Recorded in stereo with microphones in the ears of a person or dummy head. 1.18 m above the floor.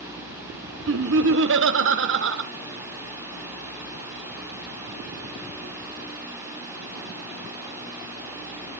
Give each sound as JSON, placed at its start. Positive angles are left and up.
{"t": 0.9, "sound": "laughter", "side_deg": -65, "distance_m": 1.1}